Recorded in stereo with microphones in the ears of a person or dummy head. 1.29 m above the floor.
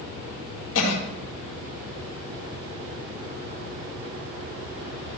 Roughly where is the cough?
Left.